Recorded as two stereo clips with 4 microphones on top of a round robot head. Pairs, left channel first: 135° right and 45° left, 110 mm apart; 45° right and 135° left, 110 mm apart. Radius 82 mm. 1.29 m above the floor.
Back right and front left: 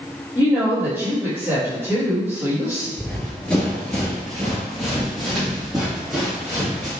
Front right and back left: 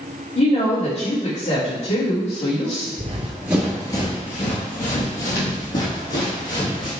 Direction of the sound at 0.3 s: 25° right.